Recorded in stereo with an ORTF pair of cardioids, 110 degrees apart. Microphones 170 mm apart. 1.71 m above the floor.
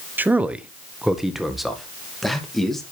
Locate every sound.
0.2 s a man speaking: 10° right, 0.8 m; by 2.8 s straight ahead, 2.5 m